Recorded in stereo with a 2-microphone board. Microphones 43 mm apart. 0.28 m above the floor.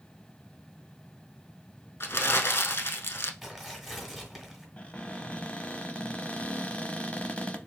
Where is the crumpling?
65° left (ahead or behind), 0.6 m.